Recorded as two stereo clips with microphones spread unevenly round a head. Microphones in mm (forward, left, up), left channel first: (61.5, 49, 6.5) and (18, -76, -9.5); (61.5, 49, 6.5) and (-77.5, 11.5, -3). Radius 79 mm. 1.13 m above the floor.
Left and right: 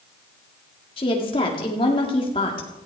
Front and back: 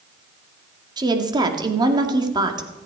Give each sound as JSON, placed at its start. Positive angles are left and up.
{"t": 1.0, "sound": "a woman speaking", "azimuth_deg": 135, "distance_m": 1.9}